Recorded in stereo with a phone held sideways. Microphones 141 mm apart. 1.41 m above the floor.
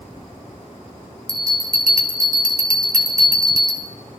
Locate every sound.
1.3 s a bell: 85° right, 1.4 m